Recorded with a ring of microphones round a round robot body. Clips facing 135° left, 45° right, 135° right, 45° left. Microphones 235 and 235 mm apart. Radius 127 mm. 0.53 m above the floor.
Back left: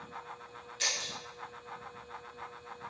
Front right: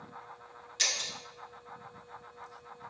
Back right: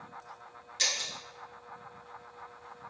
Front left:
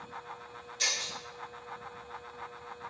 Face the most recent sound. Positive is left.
turn(degrees=-75)